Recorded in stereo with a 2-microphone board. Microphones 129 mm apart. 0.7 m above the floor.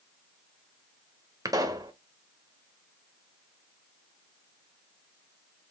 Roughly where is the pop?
Right.